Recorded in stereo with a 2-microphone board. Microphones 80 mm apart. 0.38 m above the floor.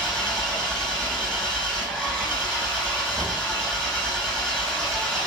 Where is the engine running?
10° left (ahead or behind), 5 m.